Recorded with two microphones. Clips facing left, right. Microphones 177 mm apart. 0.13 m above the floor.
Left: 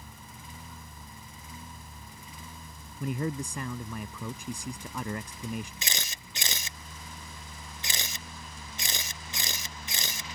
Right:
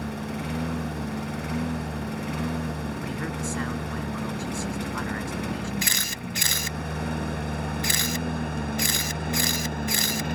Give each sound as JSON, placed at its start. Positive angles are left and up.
{"t": 0.0, "sound": "a lawn mower", "side_deg": -75}
{"t": 3.0, "sound": "a man speaking", "side_deg": 20}
{"t": 5.8, "sound": "a camera shutter", "side_deg": 20}